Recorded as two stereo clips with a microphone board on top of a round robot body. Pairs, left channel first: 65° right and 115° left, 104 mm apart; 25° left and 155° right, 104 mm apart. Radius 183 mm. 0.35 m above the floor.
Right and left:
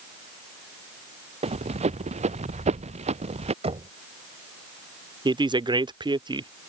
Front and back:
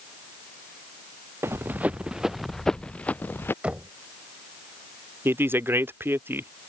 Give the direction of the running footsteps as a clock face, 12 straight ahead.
8 o'clock.